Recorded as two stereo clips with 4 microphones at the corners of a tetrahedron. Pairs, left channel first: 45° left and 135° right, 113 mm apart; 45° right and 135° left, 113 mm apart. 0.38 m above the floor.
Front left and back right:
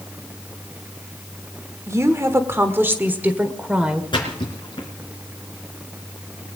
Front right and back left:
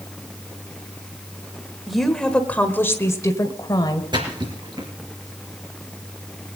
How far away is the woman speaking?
About 1.3 m.